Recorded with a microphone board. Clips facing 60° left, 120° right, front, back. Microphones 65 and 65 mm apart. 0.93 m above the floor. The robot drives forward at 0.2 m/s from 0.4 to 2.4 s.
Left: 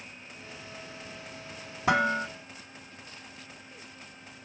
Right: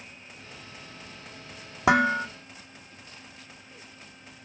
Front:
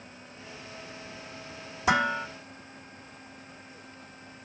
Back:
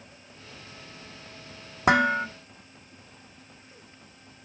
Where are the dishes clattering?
140° right, 1.2 m.